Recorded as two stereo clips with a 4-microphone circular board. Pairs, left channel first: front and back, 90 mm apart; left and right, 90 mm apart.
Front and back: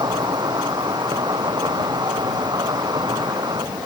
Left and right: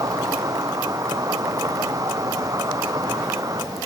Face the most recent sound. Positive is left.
turn(degrees=-140)